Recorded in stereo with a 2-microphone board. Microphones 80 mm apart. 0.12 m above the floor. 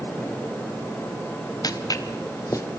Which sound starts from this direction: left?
Footsteps, at 1.6 s.